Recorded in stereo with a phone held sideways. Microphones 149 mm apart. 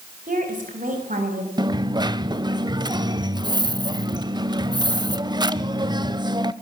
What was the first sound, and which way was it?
A woman speaking, 60° right (ahead or behind).